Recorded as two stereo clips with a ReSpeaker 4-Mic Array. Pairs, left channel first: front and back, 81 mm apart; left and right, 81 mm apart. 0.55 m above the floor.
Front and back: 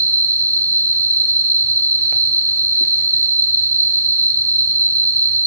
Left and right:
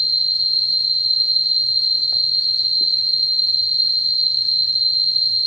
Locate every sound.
0.0 s an insect: 10° right, 2 m